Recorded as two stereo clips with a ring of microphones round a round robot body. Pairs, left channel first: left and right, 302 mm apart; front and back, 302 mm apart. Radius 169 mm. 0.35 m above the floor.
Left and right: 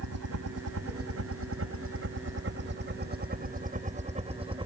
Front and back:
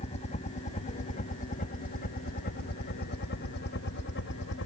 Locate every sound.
0.0 s a helicopter: 70° right; by 4.7 s 25° right